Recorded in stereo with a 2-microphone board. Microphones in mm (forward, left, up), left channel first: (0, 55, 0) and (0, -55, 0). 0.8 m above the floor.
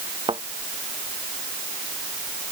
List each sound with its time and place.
0.3 s a thud: 60° right (ahead or behind)